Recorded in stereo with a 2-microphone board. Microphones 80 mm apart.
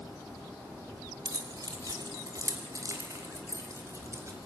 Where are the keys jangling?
55° right (ahead or behind), 4 m; by 4.5 s 35° right (ahead or behind), 5.5 m.